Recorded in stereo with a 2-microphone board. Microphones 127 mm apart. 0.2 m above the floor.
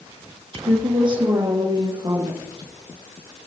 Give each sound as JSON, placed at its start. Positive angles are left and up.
{"t": 0.5, "sound": "a woman speaking", "side_deg": -40, "distance_m": 4.0}